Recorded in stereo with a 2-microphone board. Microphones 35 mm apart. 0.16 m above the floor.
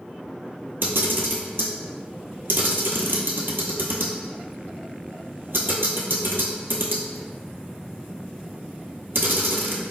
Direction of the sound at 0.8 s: 75° right (ahead or behind).